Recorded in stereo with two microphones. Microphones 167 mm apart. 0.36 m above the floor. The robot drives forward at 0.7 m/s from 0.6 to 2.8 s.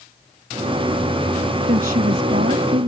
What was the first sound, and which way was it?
A woman speaking, 60° right (ahead or behind).